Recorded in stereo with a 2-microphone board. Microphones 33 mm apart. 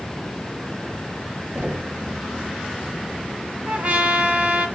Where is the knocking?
65° right (ahead or behind), 1.4 m.